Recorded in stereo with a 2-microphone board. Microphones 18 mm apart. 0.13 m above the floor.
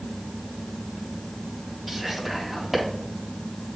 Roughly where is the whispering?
Centre.